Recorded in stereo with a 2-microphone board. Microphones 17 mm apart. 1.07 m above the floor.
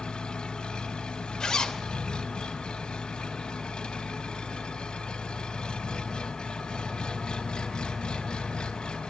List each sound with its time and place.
0.0 s an engine running: 85° left, 4 m
1.4 s a zipper: 60° left (ahead or behind), 2.5 m